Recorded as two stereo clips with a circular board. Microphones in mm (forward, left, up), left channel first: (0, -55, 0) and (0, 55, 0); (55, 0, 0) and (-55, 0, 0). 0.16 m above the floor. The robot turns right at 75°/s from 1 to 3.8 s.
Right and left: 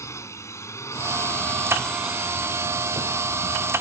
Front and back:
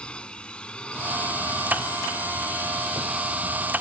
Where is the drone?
70° right; by 3.8 s 140° left.